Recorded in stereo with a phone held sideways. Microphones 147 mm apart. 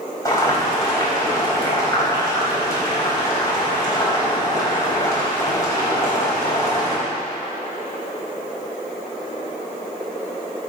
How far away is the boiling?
About 4.5 m.